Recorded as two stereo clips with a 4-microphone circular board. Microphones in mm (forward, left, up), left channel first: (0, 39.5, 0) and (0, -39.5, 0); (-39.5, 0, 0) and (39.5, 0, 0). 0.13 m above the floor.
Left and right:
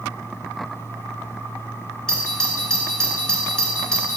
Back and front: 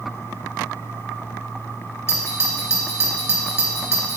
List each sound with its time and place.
2.1 s a doorbell: 165° left, 2.0 m